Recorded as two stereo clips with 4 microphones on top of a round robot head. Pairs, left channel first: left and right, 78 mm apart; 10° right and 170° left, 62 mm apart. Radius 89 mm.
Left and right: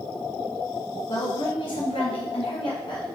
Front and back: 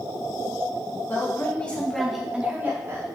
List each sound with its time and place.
1.1 s a woman speaking: 45° left, 2 m; by 3.0 s 125° left, 1.6 m